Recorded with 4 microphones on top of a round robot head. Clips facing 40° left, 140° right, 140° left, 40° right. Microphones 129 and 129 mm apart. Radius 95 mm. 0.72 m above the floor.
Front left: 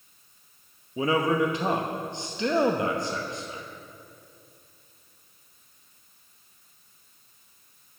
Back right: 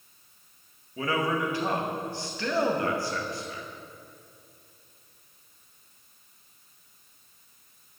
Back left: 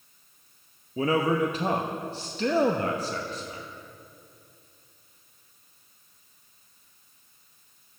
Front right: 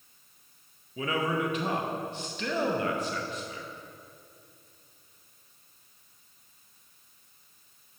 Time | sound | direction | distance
1.0 | a man speaking | 105° left | 0.8 m